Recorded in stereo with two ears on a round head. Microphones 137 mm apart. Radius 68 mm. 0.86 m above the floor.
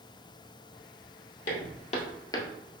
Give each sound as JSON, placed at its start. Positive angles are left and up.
{"t": 1.5, "sound": "footsteps", "side_deg": 60, "distance_m": 1.6}